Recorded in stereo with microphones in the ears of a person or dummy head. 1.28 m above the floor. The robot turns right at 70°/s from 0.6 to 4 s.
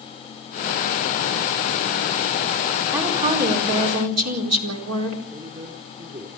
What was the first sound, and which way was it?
A woman speaking, 170° right.